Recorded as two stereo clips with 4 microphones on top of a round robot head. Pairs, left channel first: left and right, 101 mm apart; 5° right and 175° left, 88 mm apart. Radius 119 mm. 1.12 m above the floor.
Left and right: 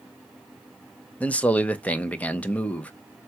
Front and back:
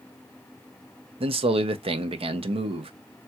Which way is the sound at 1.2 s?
165° left.